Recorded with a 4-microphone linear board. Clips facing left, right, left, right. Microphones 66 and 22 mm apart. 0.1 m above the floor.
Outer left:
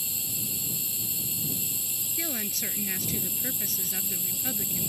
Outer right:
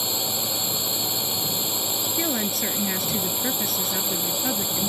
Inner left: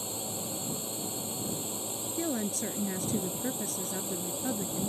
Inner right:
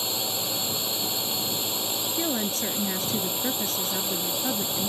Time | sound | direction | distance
0.0 | a drone | 65° right (ahead or behind) | ?
2.2 | a woman speaking | 30° right (ahead or behind) | ?